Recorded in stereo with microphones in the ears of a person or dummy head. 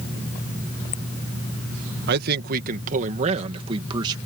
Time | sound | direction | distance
2.1 | a man speaking | 60° right (ahead or behind) | ?